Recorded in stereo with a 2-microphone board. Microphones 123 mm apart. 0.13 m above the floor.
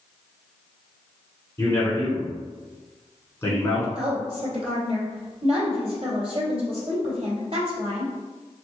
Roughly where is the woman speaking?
Right.